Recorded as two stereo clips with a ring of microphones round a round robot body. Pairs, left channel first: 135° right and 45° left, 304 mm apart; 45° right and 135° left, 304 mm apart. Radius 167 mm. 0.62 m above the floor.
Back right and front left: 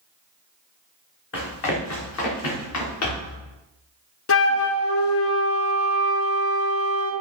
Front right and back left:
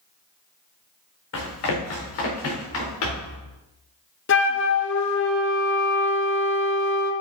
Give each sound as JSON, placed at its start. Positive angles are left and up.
{"t": 1.3, "sound": "running footsteps", "azimuth_deg": -90, "distance_m": 3.5}
{"t": 4.3, "sound": "a flute", "azimuth_deg": -95, "distance_m": 1.0}